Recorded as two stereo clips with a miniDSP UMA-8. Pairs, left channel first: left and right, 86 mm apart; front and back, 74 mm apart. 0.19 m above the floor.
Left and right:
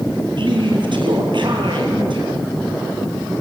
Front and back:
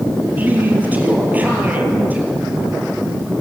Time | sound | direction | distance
0.4 | a man speaking | 110° right | 5.5 m